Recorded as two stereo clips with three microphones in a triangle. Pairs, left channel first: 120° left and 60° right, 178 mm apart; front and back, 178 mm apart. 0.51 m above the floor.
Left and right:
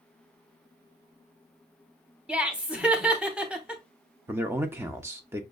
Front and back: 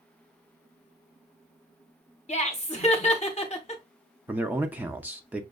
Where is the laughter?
20° left, 1.0 m.